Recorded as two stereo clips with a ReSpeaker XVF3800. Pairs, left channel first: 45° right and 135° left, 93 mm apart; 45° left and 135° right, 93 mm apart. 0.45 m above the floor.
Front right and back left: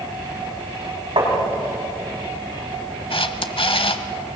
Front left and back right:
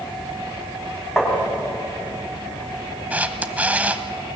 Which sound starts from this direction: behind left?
Tapping, at 1.2 s.